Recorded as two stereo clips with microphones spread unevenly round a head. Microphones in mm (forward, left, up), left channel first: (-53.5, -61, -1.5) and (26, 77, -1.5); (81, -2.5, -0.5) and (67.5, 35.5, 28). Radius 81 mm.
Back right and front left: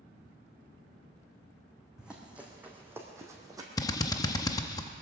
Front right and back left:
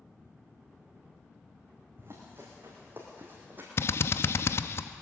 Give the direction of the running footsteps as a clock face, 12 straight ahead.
7 o'clock.